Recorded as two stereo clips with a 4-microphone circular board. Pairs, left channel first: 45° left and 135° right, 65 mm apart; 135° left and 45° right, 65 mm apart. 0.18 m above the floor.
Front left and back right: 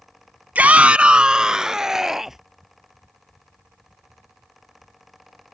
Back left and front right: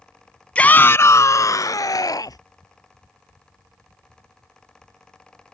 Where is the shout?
170° right; by 2.4 s 140° left.